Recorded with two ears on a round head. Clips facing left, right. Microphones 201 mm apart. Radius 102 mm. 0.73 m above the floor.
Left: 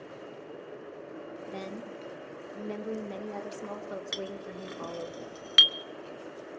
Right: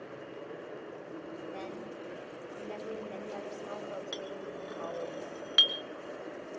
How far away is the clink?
About 0.7 m.